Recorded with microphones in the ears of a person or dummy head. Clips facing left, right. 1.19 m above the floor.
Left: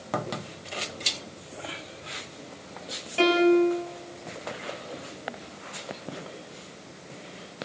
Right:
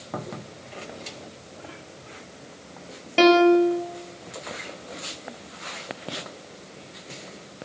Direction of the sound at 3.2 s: 65° right (ahead or behind).